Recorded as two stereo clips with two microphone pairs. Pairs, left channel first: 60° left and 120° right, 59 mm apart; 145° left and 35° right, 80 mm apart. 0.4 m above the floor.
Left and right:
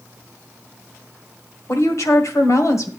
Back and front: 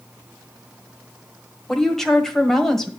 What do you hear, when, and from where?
1.7 s a woman speaking: 60° left, 1.5 m